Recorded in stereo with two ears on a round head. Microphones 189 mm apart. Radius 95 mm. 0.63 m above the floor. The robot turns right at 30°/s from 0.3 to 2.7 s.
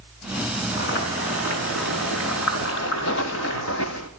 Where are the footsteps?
50° left (ahead or behind), 1.0 m; by 4.1 s 70° left (ahead or behind), 1.7 m.